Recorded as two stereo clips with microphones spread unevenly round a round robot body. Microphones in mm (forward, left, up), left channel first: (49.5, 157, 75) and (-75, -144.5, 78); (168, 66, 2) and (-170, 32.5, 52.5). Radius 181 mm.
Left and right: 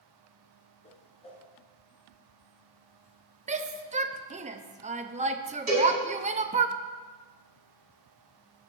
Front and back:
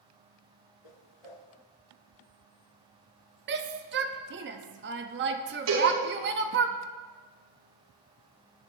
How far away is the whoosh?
About 1.7 m.